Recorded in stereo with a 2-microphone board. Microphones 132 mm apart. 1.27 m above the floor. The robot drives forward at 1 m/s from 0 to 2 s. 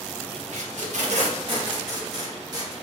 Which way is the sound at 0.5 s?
60° right (ahead or behind).